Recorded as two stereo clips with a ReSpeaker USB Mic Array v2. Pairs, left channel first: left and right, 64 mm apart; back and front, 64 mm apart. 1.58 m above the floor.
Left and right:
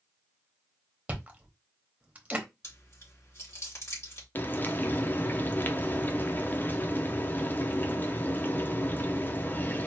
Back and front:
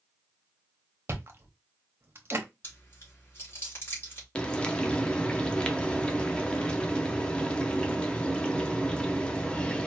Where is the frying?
120° left, 0.6 m.